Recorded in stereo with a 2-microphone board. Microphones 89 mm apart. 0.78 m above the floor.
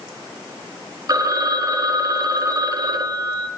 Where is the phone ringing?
40° right (ahead or behind), 0.5 m.